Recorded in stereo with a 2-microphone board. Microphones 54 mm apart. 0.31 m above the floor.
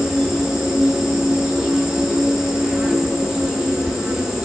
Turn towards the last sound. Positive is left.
turn(degrees=-10)  # may be behind; listen again after turning